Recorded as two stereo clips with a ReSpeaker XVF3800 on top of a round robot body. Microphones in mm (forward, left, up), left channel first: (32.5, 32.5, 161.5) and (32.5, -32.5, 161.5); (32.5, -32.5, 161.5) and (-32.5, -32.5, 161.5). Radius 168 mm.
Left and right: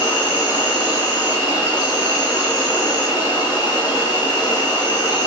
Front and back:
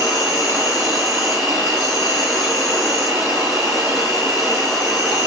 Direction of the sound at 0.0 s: 105° left.